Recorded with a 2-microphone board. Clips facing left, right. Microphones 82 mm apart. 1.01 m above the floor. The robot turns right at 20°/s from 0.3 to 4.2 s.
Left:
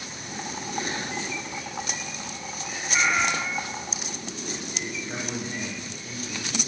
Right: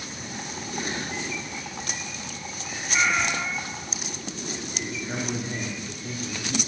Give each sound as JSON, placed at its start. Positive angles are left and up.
{"t": 2.9, "sound": "a cat meowing", "side_deg": 10, "distance_m": 1.0}
{"t": 4.8, "sound": "a man speaking", "side_deg": -60, "distance_m": 3.0}